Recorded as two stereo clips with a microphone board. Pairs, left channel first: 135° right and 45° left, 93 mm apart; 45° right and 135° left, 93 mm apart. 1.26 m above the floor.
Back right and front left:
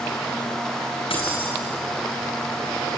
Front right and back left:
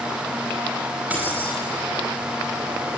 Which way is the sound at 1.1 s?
150° right.